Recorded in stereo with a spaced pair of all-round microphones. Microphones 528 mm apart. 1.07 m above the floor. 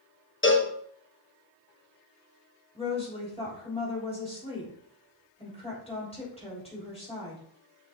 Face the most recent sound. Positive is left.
turn(degrees=10)  # may be behind; listen again after turning